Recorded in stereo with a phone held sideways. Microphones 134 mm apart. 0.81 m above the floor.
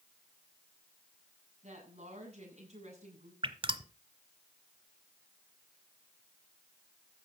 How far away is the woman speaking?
About 8.5 m.